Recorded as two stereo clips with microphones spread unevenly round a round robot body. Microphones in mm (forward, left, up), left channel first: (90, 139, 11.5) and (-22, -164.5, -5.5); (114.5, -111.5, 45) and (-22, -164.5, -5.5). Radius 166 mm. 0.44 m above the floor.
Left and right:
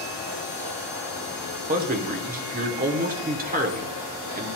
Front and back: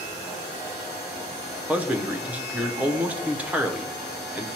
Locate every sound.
1.7 s a man speaking: 135° right, 0.8 m